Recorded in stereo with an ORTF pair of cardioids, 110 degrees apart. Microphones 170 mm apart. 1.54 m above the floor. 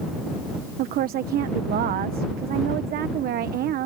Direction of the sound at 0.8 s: 65° right.